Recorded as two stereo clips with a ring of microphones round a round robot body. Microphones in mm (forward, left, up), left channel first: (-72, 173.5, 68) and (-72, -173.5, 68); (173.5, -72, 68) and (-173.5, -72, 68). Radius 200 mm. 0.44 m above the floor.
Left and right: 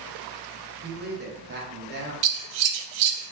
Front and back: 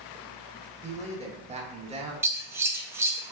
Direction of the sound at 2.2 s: 95° right.